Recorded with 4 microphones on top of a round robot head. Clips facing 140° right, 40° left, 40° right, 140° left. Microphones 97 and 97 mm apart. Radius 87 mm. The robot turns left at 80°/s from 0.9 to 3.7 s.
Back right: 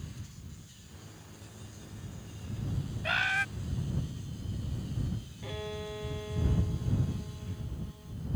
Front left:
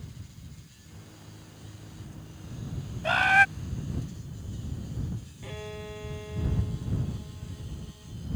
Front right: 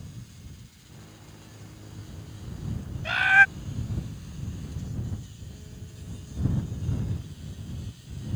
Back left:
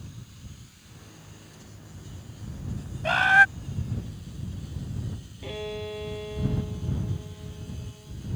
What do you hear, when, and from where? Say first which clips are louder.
3.0 s a bird: front left 10 dB, back left 1 dB; 100° left; by 3.5 s 65° left
5.4 s a violin: back right 1 dB, back left 14 dB; 130° left